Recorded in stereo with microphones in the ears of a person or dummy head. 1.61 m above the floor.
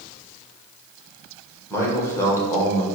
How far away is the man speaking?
About 1.2 m.